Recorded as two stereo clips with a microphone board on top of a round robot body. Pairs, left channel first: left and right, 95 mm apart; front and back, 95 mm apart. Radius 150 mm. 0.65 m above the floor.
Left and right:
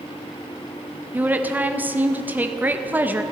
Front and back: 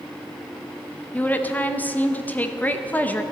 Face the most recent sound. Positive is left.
turn(degrees=-45)